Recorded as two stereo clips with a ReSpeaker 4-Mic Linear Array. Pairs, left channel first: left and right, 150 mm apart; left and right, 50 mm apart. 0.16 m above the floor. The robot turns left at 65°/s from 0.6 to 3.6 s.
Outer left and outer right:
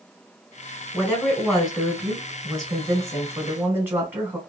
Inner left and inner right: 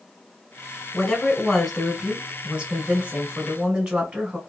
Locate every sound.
0.9 s a woman speaking: 10° left (ahead or behind), 1.0 m; by 4.4 s 15° right (ahead or behind), 1.0 m